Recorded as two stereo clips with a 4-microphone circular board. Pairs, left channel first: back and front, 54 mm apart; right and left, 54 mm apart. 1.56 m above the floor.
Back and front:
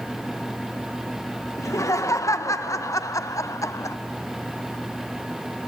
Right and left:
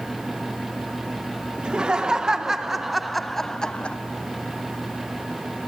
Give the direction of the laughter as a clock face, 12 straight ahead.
7 o'clock.